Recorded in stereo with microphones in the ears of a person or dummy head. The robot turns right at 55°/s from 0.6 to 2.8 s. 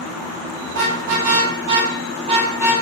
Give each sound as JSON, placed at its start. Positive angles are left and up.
{"t": 0.7, "sound": "a car horn", "side_deg": -60, "distance_m": 9.0}